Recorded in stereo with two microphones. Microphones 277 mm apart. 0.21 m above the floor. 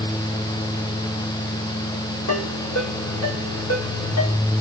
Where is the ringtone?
60° left (ahead or behind), 6.5 m.